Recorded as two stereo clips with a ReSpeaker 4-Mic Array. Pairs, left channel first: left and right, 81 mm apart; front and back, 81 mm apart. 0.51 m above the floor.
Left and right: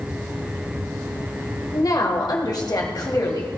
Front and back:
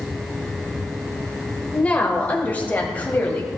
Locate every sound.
1.7 s a woman speaking: 70° left, 1.8 m; by 3.5 s 65° left, 3 m